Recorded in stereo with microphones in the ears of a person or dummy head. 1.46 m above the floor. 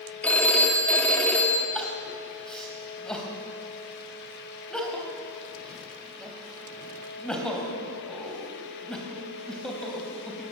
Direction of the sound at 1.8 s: 5° left (ahead or behind).